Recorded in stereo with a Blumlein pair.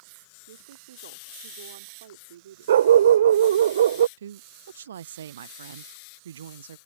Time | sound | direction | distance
0.5 | a woman speaking | 60° right | ?
2.7 | a dog barking | 65° right | ?
4.2 | a woman speaking | 65° right | ?